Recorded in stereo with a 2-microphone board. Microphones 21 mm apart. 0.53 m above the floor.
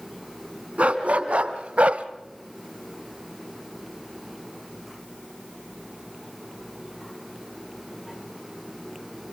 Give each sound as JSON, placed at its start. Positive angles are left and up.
{"t": 0.8, "sound": "a dog barking", "side_deg": -85, "distance_m": 2.0}